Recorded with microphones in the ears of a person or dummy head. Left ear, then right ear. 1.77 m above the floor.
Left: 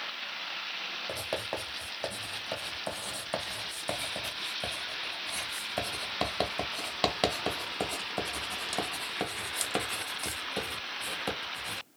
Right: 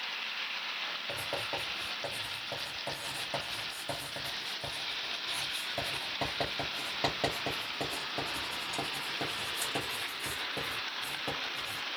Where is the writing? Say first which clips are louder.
Left 1 dB; 45° left (ahead or behind), 1.0 m.